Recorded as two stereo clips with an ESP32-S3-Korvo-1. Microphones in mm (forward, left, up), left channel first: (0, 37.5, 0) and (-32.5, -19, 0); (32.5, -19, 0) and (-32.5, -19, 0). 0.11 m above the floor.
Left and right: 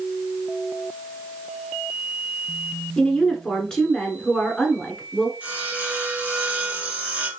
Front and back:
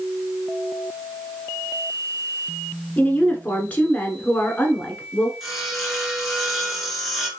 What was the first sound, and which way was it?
A woman speaking, 5° right.